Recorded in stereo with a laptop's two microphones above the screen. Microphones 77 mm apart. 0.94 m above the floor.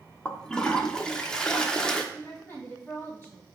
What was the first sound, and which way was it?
A toilet flushing, 10° left (ahead or behind).